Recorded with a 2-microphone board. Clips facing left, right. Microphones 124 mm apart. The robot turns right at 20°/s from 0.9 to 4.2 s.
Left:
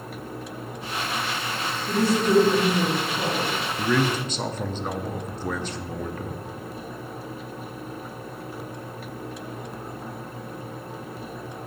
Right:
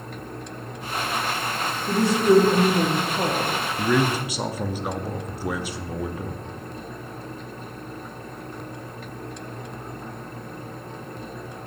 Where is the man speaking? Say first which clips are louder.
Right 1 dB; 5° right (ahead or behind), 0.5 m; by 6.4 s 10° right (ahead or behind), 0.5 m.